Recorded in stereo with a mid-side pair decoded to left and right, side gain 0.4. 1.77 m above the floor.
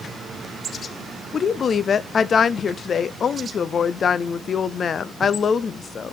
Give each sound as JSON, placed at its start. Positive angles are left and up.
{"t": 1.3, "sound": "a woman speaking", "azimuth_deg": 50, "distance_m": 0.6}